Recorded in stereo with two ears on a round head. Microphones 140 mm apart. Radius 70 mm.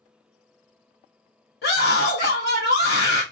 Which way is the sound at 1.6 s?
65° left (ahead or behind).